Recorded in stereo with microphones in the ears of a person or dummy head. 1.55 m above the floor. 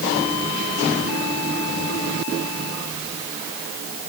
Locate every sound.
Only background noise.